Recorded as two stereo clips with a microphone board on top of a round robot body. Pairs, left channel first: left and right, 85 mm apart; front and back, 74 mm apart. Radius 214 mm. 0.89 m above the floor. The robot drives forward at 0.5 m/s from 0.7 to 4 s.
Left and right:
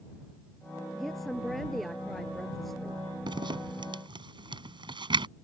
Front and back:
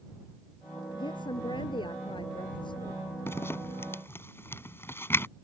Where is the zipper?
60° right.